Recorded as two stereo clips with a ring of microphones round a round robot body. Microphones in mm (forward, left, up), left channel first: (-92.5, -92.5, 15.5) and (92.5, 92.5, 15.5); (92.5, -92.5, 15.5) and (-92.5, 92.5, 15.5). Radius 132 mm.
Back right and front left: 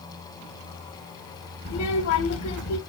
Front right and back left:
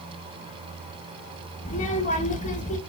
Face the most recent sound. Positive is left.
turn(degrees=-105)